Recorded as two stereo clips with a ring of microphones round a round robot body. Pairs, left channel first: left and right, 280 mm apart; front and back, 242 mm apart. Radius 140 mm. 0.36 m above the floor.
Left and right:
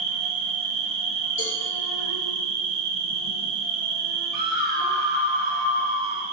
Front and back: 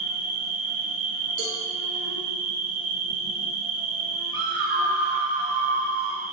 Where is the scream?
145° left, 2.5 m.